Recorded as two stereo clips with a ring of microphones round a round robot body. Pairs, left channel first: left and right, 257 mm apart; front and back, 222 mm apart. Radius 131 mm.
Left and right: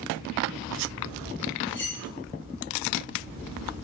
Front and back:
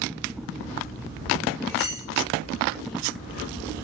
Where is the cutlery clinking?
45° left, 3.5 m.